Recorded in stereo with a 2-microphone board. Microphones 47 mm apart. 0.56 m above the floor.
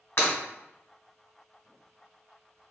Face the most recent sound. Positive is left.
turn(degrees=55)  # may be behind; listen again after turning